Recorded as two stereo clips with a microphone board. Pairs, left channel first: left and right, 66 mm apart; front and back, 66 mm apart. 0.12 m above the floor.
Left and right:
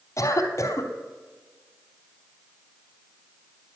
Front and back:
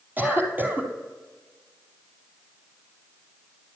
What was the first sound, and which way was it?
A cough, 125° left.